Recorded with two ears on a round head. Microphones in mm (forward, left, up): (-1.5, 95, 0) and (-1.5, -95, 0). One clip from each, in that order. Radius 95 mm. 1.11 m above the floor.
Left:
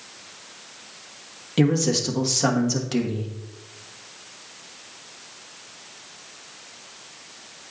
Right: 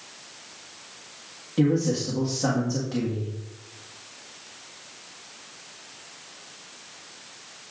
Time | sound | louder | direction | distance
1.6 | a man speaking | left 2 dB | 65° left (ahead or behind) | 1.3 m